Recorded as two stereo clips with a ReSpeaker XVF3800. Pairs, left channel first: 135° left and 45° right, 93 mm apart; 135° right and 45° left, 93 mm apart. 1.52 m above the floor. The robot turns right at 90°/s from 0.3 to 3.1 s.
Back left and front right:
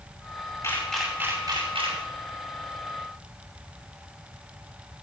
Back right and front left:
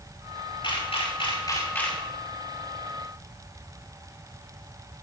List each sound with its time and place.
0.6 s a camera shutter: 165° right, 5.5 m; by 2.0 s 45° right, 5.5 m